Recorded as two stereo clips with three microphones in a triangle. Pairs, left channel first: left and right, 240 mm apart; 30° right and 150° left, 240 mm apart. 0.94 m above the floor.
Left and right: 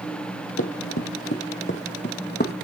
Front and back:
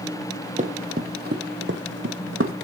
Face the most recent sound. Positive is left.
turn(degrees=135)